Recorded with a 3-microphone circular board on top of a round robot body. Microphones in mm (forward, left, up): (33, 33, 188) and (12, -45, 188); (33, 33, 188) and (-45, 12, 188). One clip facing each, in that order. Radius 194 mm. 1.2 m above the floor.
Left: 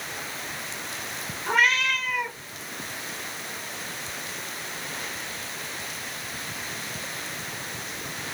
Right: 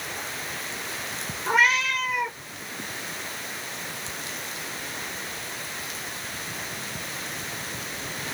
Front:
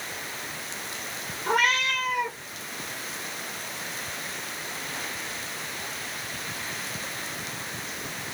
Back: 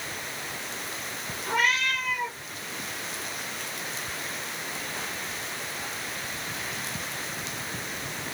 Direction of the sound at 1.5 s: 25° right.